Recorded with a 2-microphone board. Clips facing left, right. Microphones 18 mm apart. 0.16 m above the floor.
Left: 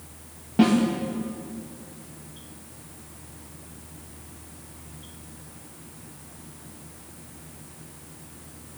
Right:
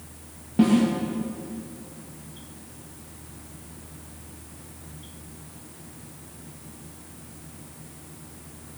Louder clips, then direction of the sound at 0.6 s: Even; 25° left (ahead or behind).